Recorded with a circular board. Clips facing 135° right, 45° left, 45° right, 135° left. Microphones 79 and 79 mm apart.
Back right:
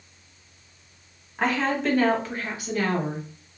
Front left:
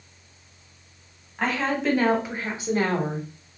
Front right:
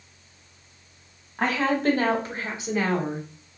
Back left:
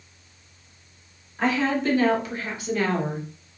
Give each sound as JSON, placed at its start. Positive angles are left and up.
{"t": 1.4, "sound": "a woman speaking", "azimuth_deg": -55, "distance_m": 1.5}